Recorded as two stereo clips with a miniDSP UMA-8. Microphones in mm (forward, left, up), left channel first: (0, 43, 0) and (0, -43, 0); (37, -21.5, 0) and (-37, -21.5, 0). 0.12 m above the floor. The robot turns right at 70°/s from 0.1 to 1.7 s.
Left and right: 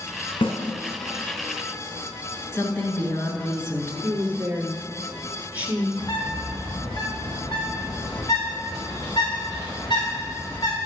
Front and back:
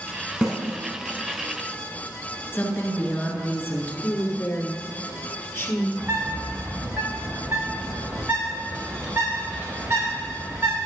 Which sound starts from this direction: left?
A snare drum, at 0.4 s.